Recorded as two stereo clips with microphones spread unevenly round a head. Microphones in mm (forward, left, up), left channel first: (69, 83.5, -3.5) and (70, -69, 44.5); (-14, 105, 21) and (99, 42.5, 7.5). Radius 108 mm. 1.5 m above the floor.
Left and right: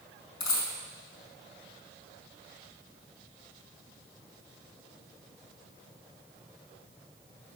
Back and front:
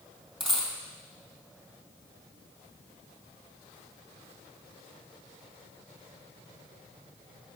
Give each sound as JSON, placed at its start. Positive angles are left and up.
{"t": 0.4, "sound": "a dropped coin", "azimuth_deg": 70, "distance_m": 2.5}